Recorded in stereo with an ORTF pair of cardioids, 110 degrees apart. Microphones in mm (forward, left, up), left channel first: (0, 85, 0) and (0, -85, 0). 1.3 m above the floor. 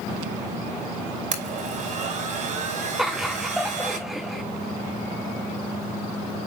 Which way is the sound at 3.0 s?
Straight ahead.